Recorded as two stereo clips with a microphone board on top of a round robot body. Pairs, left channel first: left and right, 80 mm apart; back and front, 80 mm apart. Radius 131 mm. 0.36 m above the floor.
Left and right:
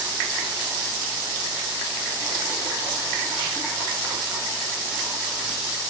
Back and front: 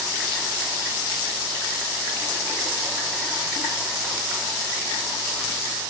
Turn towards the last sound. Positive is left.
No sound to turn to.